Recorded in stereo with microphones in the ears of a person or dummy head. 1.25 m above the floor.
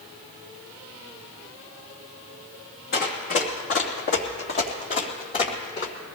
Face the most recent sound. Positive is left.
turn(degrees=40)  # may be behind; listen again after turning